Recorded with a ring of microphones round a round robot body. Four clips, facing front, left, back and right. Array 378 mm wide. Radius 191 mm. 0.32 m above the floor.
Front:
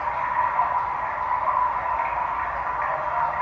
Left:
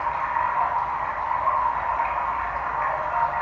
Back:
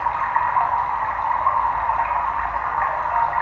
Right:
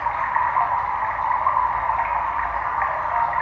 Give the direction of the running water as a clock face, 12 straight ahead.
5 o'clock.